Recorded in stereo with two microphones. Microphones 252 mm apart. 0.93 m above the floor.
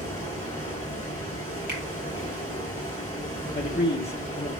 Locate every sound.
0.0 s running water: 15° left (ahead or behind), 4.5 m
1.7 s a finger snap: 40° right (ahead or behind), 1.6 m
3.5 s a man speaking: 45° left (ahead or behind), 0.6 m